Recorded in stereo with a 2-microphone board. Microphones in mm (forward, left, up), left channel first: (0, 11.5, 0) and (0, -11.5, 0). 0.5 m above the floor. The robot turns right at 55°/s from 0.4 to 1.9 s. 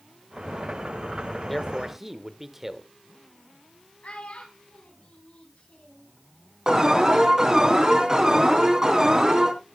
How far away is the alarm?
About 3 m.